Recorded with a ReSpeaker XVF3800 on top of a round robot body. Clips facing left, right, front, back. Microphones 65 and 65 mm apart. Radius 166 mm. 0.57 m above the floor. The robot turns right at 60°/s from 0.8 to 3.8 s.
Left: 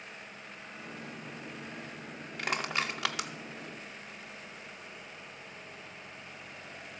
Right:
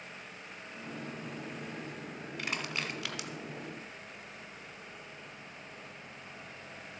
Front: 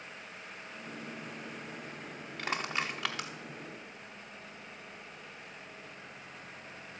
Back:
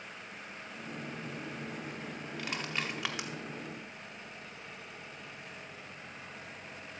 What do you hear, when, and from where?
2.4 s crushing: 55° left, 0.5 m; by 3.3 s 110° left, 0.5 m